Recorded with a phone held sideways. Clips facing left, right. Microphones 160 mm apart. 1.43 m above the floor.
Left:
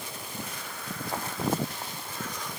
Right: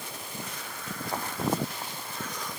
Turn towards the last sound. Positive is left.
No sound to turn to.